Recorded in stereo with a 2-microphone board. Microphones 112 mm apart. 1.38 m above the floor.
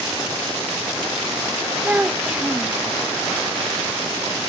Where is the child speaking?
10° right (ahead or behind).